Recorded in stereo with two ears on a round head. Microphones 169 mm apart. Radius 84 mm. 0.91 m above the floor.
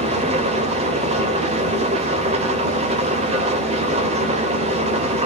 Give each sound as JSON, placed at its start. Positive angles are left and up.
{"t": 0.0, "sound": "an engine running", "side_deg": -30, "distance_m": 1.1}